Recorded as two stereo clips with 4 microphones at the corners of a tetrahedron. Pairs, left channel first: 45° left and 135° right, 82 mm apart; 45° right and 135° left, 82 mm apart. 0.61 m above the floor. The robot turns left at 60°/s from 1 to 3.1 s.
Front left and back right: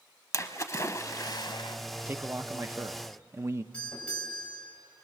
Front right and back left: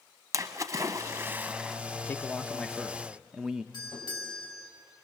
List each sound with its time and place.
0.3 s a splash: 90° left, 0.9 m; by 1.8 s 45° left, 0.9 m
2.1 s a man speaking: 85° right, 0.7 m; by 3.6 s 150° right, 0.7 m
3.7 s a doorbell: 30° right, 5.5 m